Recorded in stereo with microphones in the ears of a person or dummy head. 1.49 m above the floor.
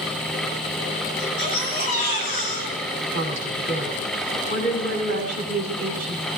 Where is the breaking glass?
I don't hear breaking glass.